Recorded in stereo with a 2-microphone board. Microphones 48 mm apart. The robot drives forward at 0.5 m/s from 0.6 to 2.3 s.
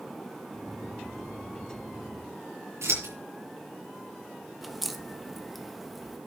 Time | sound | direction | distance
2.8 | scissors | 70° right (ahead or behind) | 6.5 m
4.6 | a crack | centre (ahead or behind) | 1.2 m